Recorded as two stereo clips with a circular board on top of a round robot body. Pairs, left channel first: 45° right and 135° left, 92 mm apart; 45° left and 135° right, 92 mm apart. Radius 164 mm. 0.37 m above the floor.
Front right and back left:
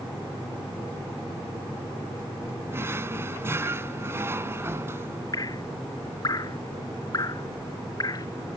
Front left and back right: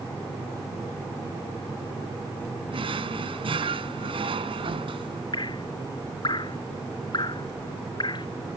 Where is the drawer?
160° right.